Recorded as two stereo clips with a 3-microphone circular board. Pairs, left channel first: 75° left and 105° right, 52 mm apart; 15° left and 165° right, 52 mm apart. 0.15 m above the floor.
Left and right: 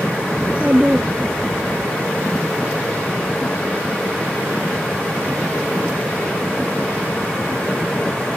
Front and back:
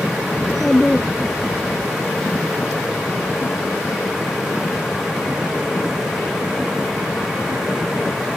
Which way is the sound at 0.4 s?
80° right.